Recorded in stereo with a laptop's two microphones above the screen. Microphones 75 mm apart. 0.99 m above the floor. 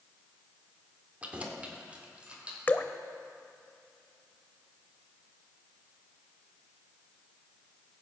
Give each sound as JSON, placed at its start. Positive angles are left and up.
{"t": 1.2, "sound": "keys jangling", "side_deg": -20, "distance_m": 1.8}
{"t": 2.7, "sound": "dripping", "side_deg": 25, "distance_m": 0.8}